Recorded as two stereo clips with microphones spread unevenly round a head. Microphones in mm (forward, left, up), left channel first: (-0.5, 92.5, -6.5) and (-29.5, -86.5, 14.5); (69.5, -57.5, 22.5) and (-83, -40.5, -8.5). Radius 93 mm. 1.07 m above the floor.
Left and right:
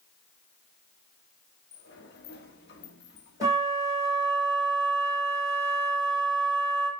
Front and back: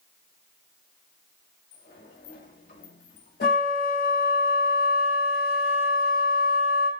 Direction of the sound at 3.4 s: 25° right.